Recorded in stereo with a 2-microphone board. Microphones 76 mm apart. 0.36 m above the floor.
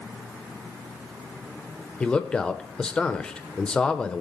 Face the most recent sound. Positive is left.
turn(degrees=10)  # may be behind; listen again after turning